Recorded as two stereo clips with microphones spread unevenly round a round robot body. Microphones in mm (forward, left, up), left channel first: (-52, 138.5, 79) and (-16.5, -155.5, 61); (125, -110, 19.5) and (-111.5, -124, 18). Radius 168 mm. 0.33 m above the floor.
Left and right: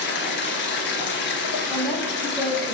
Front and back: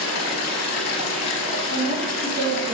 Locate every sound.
0.0 s running water: 40° left, 1.0 m
1.7 s a woman speaking: 170° right, 2.5 m